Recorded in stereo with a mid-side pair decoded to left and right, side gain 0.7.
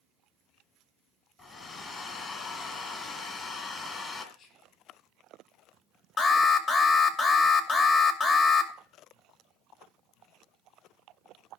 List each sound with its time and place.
1.4 s a hair dryer: 35° left, 3 m
4.3 s whispering: 45° left, 5.5 m
6.2 s an alarm: 35° left, 2.5 m